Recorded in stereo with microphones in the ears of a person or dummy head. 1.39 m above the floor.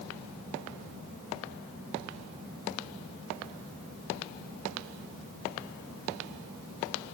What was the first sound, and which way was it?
Only background noise.